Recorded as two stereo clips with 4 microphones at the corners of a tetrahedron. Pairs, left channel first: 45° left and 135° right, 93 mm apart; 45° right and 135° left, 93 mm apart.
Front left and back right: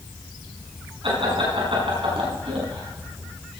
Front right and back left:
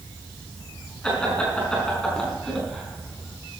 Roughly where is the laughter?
Behind right.